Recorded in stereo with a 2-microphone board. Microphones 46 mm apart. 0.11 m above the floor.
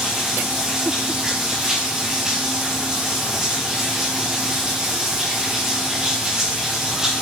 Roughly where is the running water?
Centre.